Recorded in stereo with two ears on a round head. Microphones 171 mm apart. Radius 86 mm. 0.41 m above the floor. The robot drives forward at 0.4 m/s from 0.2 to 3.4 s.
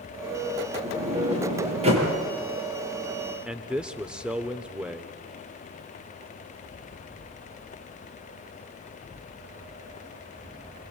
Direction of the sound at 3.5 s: 5° right (ahead or behind).